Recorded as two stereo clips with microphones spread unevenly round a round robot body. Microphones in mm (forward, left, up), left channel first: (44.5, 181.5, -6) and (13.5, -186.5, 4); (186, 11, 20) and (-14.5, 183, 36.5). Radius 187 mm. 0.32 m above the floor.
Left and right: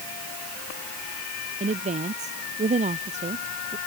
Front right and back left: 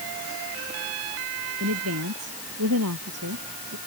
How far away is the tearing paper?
I don't hear tearing paper.